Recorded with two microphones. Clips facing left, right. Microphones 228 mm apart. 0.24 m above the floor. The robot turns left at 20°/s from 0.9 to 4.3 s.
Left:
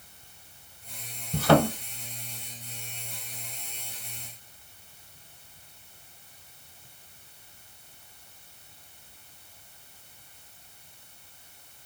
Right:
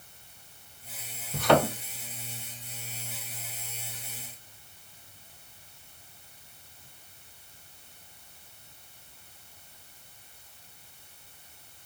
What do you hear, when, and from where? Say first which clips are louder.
1.3 s a thud: left 2 dB; 40° left (ahead or behind), 1.4 m; by 1.7 s 45° left (ahead or behind), 1.4 m